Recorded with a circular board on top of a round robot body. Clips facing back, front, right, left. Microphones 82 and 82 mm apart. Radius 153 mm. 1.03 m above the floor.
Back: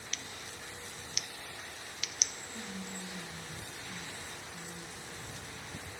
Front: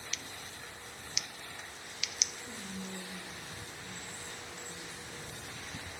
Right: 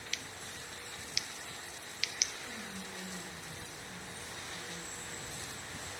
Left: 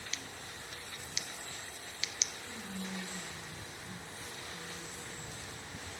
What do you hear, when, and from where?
0.1 s scissors: 145° left, 0.6 m
2.5 s whispering: 5° right, 3.5 m